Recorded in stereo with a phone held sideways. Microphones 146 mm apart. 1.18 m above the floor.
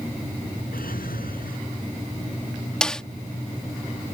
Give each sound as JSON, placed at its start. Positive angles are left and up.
{"t": 0.7, "sound": "a drawer", "side_deg": 80}
{"t": 2.8, "sound": "a snare drum", "side_deg": 5}